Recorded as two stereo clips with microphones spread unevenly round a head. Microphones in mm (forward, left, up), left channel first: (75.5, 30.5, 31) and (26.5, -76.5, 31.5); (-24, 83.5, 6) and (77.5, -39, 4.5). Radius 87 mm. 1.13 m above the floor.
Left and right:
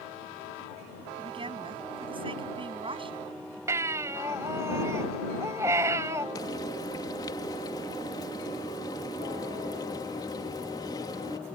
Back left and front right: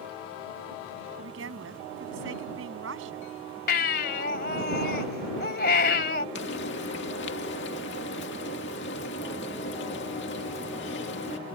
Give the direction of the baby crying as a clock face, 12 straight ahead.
6 o'clock.